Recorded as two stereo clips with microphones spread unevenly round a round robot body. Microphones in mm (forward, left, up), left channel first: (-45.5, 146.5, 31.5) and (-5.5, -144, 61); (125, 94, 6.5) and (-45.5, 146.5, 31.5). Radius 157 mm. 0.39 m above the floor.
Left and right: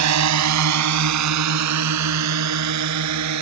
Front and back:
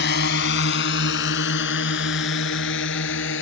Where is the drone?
50° right; by 3.4 s 45° right.